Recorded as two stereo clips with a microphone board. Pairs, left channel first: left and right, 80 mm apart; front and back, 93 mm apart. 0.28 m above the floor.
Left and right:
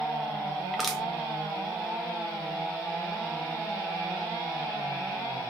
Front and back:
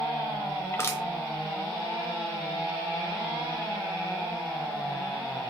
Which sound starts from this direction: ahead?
Crushing, at 0.7 s.